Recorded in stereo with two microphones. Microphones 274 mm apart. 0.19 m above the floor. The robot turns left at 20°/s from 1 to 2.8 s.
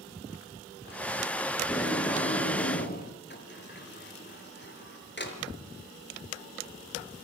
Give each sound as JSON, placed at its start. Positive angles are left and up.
{"t": 1.6, "sound": "tape being pulled", "side_deg": 10, "distance_m": 6.0}
{"t": 3.3, "sound": "a sliding door", "side_deg": 40, "distance_m": 4.0}